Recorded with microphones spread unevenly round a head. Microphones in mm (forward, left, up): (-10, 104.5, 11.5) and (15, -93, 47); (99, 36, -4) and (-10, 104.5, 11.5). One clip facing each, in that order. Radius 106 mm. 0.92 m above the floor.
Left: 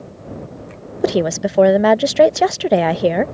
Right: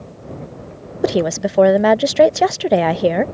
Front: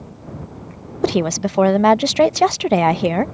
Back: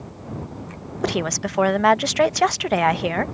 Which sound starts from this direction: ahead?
A woman speaking, at 1.0 s.